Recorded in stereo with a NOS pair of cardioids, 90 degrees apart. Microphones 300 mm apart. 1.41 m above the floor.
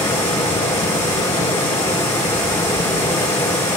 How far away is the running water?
About 7 m.